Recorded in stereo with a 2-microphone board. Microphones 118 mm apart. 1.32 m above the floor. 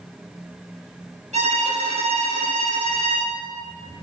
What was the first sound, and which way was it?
A violin, 80° right.